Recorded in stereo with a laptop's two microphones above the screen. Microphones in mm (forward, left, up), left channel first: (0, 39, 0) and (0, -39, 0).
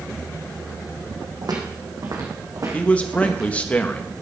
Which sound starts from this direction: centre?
A man speaking, at 2.7 s.